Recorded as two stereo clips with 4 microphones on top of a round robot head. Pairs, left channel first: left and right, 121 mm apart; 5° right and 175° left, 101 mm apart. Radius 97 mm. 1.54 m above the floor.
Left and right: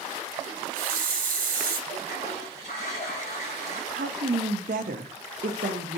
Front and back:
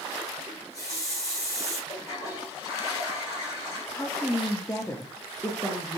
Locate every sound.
0.5 s a running tap: 75° right, 1.3 m
1.9 s a toilet flushing: 40° left, 2.5 m
3.9 s a woman speaking: 85° right, 0.7 m